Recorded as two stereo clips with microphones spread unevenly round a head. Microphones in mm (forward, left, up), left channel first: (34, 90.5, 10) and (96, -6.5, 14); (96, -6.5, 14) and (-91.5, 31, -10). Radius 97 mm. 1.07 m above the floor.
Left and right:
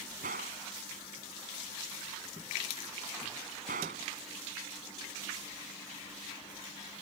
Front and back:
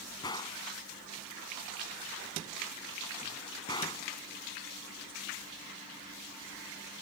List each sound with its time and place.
0.2 s a gunshot: 80° right